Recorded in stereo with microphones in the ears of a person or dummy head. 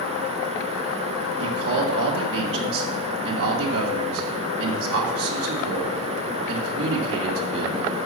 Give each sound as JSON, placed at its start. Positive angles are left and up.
{"t": 1.4, "sound": "a man speaking", "side_deg": -80, "distance_m": 2.5}